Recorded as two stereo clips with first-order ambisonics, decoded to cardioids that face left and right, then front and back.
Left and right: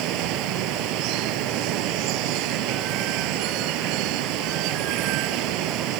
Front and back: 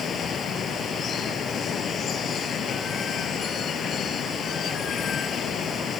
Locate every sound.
0.0 s running water: 60° right